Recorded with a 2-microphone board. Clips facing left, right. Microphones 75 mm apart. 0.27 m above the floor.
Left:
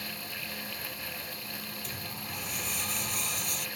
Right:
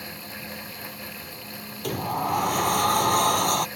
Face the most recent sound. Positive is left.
turn(degrees=-60)  # may be behind; listen again after turning